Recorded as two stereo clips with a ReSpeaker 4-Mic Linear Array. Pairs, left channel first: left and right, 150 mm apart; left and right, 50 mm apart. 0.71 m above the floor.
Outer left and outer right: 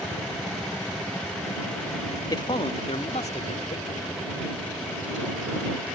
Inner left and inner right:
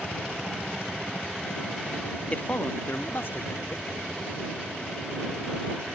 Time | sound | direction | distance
2.3 | a man speaking | 25° left (ahead or behind) | ?